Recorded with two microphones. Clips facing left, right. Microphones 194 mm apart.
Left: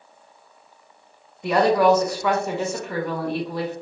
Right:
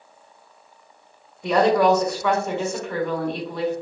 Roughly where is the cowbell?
I don't hear a cowbell.